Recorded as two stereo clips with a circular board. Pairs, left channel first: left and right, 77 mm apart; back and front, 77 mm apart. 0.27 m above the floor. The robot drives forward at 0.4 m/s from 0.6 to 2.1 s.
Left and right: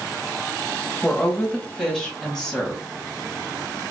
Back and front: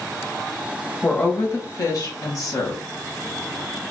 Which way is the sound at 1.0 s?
170° left.